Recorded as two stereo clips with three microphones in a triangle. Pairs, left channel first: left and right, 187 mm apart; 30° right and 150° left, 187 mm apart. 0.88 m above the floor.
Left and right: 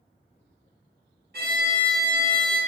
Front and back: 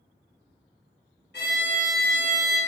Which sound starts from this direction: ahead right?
A violin, at 1.3 s.